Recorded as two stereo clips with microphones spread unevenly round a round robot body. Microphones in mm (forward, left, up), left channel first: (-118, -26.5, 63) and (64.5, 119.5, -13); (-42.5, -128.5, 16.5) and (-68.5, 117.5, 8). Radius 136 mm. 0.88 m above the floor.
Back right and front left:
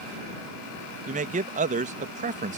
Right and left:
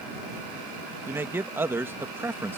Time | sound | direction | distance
1.1 | a man speaking | 20° left | ?